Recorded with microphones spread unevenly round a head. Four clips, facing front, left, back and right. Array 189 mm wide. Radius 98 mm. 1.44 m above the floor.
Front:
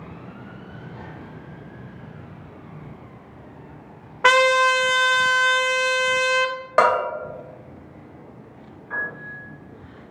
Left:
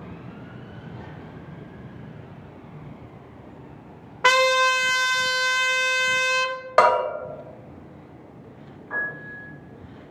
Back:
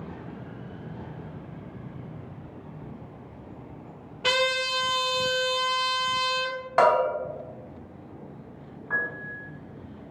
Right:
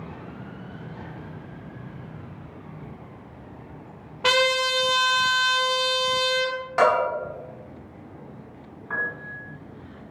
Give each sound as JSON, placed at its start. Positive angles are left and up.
{"t": 4.2, "sound": "a trumpet", "azimuth_deg": 15, "distance_m": 0.6}
{"t": 6.8, "sound": "a bell", "azimuth_deg": 75, "distance_m": 1.3}
{"t": 8.9, "sound": "a piano", "azimuth_deg": -105, "distance_m": 1.1}